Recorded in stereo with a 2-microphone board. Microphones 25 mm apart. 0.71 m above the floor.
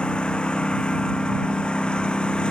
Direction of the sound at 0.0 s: 45° left (ahead or behind).